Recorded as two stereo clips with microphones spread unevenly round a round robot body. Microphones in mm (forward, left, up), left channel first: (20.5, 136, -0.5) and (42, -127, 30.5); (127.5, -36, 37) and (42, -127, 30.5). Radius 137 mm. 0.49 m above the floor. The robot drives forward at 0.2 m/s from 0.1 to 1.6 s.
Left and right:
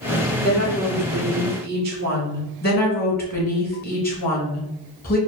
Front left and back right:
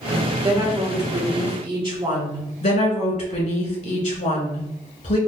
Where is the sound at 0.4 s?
125° right, 1.5 m; by 2.5 s 135° right, 1.6 m.